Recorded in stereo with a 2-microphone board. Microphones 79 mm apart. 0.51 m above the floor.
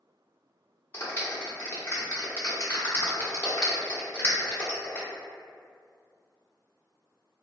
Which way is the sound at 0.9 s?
35° left (ahead or behind).